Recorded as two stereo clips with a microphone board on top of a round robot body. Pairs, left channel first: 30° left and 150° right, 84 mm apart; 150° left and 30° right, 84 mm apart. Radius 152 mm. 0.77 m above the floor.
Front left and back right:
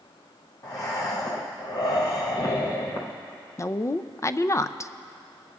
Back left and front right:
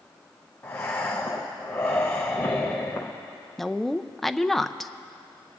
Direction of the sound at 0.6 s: 80° left.